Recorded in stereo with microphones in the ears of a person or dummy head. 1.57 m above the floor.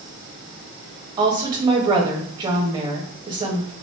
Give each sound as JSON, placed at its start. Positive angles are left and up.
{"t": 1.2, "sound": "a woman speaking", "side_deg": -20, "distance_m": 1.2}